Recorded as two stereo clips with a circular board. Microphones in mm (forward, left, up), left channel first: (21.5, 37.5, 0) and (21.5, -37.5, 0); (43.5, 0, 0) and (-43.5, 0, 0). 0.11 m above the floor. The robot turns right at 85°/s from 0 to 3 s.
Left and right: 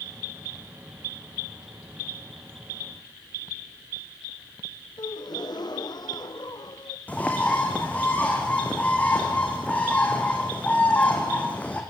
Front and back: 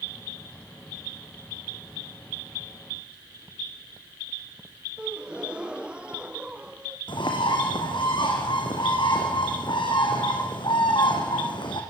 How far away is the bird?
About 4.5 m.